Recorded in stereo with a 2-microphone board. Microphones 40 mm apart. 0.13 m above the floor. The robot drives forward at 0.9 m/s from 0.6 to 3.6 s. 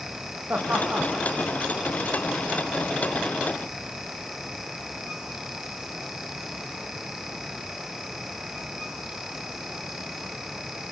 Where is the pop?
I don't hear a pop.